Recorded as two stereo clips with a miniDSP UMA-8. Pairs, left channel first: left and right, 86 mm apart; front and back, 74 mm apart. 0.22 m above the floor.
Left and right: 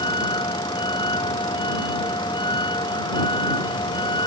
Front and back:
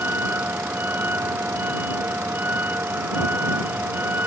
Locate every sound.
0.0 s a vehicle: 115° left